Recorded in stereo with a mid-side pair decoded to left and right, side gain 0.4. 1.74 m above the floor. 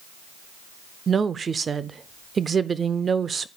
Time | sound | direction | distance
1.1 | a woman speaking | 45° right | 0.5 m